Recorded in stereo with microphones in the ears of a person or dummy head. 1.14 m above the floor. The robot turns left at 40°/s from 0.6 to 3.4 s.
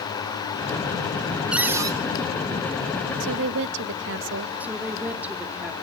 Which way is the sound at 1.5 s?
Centre (ahead or behind).